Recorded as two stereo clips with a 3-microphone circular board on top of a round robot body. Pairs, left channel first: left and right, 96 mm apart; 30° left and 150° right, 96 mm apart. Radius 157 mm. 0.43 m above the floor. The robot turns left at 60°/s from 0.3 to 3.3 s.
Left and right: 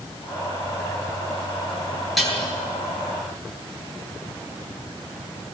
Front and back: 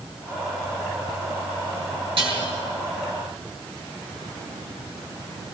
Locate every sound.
2.2 s dishes clattering: straight behind, 7.5 m; by 2.4 s 165° left, 7.5 m